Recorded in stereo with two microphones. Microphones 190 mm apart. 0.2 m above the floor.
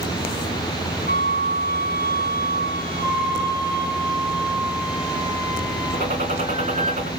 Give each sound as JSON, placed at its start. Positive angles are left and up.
{"t": 1.1, "sound": "a flute", "side_deg": 50, "distance_m": 1.2}
{"t": 3.0, "sound": "a flute", "side_deg": 0, "distance_m": 2.0}
{"t": 5.9, "sound": "a gunshot", "side_deg": -40, "distance_m": 2.5}